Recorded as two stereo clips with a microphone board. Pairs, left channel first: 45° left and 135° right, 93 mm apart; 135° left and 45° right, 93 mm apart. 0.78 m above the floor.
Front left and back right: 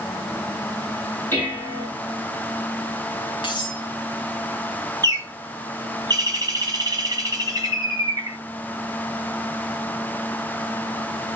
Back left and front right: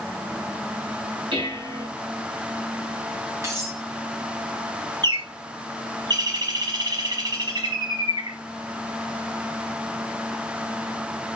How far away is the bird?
About 1.5 m.